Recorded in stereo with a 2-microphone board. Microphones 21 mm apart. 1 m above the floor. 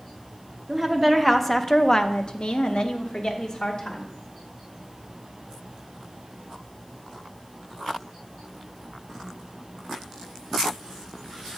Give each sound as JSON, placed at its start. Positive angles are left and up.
{"t": 0.7, "sound": "a woman speaking", "side_deg": -10, "distance_m": 1.0}